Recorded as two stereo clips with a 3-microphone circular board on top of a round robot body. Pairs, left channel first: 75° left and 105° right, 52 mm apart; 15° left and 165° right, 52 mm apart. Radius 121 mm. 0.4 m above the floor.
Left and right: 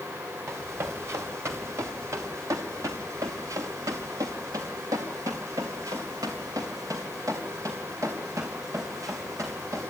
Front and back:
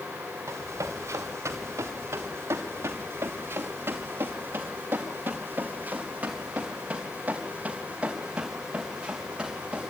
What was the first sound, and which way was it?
Running footsteps, 150° right.